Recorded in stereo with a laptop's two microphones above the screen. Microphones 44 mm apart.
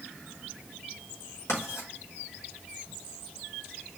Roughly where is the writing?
Left.